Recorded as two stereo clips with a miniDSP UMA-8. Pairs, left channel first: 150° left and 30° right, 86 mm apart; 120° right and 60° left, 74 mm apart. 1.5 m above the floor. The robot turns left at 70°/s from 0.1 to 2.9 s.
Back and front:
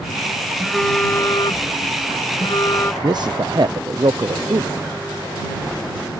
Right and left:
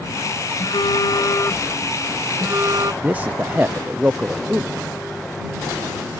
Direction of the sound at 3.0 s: 5° right.